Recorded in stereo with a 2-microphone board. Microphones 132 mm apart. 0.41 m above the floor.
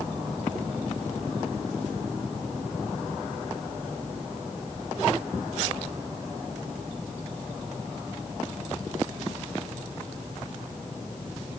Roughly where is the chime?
I don't hear a chime.